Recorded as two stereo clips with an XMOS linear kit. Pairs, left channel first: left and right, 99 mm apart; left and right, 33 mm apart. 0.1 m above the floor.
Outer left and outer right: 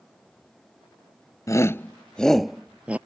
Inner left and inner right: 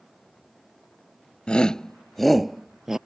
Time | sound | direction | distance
1.5 | a shout | 35° left (ahead or behind) | ?